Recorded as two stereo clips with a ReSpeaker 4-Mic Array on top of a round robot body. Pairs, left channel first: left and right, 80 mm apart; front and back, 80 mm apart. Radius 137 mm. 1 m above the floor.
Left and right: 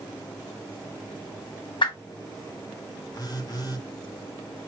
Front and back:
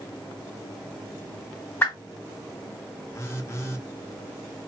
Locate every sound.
1.8 s a whoosh: 65° left, 1.6 m
3.1 s a phone buzzing: 55° left, 1.4 m